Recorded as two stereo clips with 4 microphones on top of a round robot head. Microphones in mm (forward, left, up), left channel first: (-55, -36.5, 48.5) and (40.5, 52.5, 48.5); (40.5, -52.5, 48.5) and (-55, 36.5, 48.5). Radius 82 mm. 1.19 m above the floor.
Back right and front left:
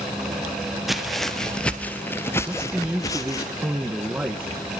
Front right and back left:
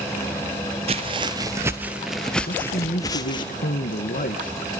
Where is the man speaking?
40° right, 1.5 m.